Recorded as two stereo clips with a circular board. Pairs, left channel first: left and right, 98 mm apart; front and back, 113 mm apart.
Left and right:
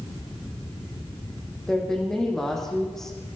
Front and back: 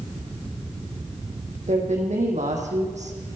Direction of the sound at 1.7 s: 175° left.